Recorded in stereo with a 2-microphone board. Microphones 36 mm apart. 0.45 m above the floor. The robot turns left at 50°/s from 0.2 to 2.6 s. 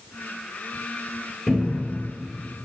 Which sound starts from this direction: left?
A cupboard door, at 1.5 s.